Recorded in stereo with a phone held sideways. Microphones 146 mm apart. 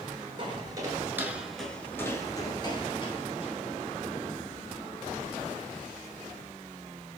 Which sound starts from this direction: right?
Footsteps, at 0.4 s.